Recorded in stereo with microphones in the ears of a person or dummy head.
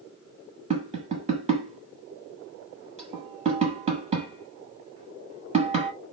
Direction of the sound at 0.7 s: 35° right (ahead or behind).